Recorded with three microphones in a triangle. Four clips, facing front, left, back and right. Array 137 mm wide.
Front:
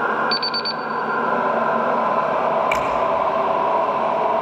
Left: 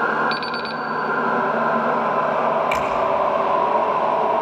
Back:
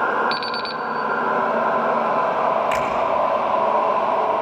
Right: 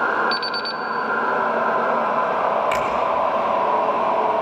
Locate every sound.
0.3 s an alarm clock: 150° left, 1.5 m
2.7 s a finger snap: 50° right, 5 m